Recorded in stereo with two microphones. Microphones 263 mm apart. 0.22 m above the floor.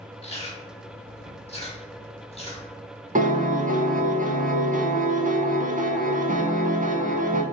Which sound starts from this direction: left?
Chewing, at 0.2 s.